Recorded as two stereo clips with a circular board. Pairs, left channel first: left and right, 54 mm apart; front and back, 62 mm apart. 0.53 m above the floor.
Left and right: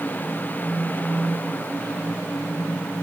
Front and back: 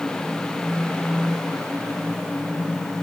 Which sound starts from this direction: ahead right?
A phone buzzing, at 0.6 s.